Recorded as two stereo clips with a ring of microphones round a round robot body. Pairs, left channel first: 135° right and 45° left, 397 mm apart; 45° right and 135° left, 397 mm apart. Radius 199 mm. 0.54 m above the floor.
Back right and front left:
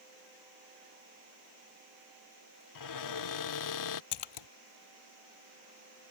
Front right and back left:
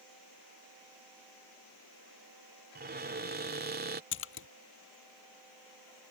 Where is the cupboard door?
165° right.